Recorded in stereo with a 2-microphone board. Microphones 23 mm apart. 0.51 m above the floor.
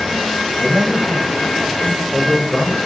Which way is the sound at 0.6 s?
55° right (ahead or behind).